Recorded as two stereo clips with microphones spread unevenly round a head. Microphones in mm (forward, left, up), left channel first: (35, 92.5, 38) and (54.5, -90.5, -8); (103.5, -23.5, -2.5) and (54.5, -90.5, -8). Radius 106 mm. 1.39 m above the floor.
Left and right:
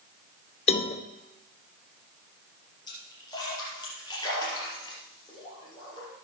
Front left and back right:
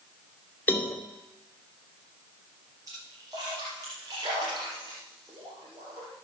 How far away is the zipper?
I don't hear a zipper.